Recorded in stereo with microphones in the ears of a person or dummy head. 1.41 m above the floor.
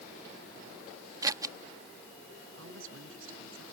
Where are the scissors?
15° right (ahead or behind).